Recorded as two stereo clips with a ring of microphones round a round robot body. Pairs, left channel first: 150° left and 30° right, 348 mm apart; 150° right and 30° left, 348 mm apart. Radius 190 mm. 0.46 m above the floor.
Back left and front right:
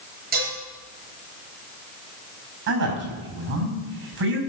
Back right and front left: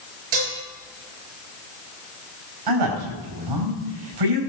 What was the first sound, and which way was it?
Dishes clattering, 35° left.